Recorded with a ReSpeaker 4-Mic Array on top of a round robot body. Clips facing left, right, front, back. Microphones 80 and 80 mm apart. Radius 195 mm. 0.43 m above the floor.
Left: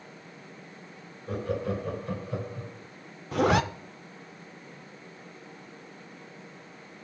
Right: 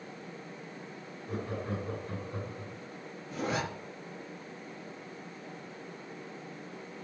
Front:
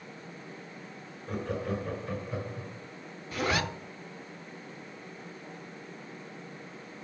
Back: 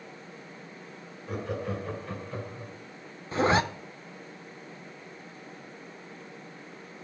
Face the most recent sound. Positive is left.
turn(degrees=115)